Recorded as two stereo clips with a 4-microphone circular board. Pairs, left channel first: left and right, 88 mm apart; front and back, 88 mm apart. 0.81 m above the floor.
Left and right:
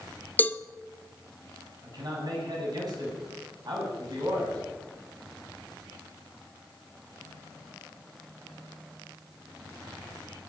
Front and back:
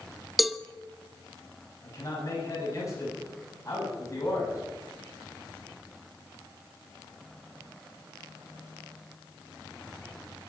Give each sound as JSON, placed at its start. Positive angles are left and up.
{"t": 0.4, "sound": "a cowbell", "azimuth_deg": 90, "distance_m": 0.6}
{"t": 1.8, "sound": "a man speaking", "azimuth_deg": -50, "distance_m": 7.5}